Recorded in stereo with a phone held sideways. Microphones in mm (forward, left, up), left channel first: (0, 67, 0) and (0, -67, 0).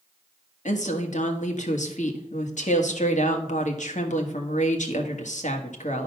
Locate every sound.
0.7 s a woman speaking: 65° left (ahead or behind), 1.4 m